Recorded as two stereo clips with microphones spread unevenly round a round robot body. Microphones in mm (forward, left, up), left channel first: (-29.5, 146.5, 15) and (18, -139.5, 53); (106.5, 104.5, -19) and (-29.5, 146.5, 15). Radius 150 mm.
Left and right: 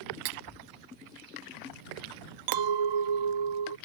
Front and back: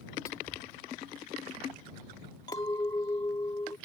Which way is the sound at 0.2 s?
95° right.